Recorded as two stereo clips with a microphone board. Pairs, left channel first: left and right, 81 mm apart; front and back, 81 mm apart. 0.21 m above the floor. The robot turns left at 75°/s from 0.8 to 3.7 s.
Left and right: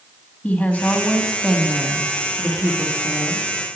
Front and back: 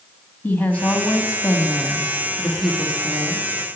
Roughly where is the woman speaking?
Ahead left.